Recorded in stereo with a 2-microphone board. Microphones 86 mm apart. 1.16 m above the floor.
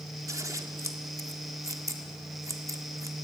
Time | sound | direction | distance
0.3 | scissors | 40° right (ahead or behind) | 1.7 m